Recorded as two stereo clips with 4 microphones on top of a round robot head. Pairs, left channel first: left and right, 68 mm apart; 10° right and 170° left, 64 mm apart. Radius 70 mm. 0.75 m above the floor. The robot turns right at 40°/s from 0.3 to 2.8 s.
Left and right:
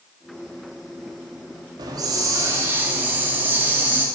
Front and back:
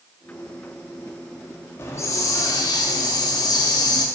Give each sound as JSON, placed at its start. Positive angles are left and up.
{"t": 1.8, "sound": "a hiss", "azimuth_deg": -65, "distance_m": 0.7}